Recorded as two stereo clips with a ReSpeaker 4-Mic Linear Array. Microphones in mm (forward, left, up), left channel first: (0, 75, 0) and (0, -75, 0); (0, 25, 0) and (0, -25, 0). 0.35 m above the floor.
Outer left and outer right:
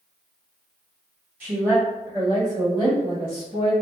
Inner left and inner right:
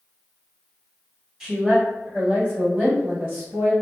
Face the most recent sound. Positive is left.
turn(degrees=-45)  # may be behind; listen again after turning